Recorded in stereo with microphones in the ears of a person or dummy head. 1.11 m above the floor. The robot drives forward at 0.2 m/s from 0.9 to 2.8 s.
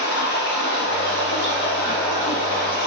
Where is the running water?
55° left (ahead or behind), 1.3 m; by 2.9 s 50° left (ahead or behind), 1.4 m.